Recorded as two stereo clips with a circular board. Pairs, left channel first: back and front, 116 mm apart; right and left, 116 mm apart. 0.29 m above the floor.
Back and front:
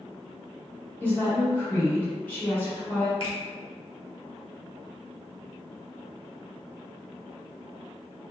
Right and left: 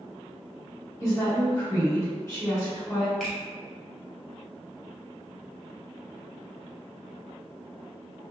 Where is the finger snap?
Straight behind, 1.0 m.